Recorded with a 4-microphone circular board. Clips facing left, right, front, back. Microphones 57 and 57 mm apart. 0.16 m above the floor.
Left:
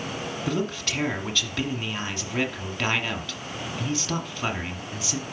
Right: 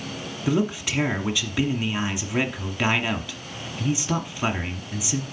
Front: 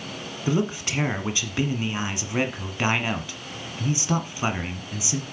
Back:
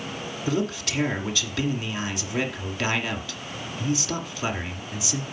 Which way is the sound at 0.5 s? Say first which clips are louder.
Right 5 dB, front 2 dB; 25° right.